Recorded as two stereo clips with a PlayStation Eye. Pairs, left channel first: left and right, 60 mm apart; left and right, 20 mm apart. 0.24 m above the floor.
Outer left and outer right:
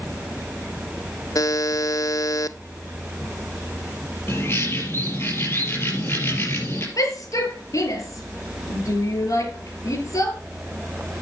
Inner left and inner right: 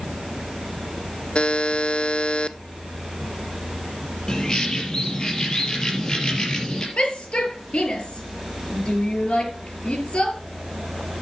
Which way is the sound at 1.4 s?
70° left (ahead or behind).